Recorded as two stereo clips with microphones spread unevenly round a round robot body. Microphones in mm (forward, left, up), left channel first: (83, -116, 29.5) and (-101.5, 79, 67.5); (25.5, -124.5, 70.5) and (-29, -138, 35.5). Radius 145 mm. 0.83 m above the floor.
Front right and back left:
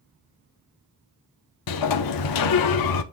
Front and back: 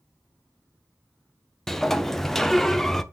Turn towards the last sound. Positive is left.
turn(degrees=-55)